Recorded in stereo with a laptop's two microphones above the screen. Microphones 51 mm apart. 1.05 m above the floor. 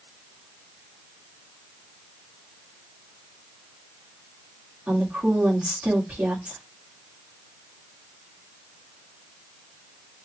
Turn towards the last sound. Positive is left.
turn(degrees=-25)  # may be behind; listen again after turning